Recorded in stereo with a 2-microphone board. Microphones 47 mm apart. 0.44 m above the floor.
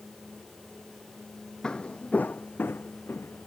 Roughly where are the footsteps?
Centre.